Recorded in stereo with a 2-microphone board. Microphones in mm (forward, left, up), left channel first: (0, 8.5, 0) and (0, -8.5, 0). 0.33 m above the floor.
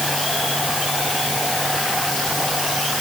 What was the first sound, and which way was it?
Only background noise.